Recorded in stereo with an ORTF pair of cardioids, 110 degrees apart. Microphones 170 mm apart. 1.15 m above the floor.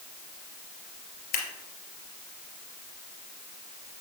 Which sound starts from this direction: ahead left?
Scissors, at 1.3 s.